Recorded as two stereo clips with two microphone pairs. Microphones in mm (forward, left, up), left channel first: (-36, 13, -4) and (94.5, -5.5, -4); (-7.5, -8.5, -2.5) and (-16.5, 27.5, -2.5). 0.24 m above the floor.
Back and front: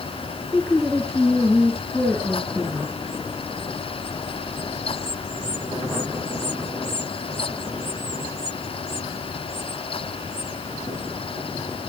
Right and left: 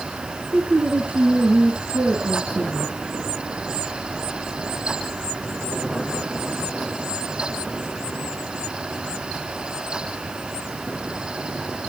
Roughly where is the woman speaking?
Left.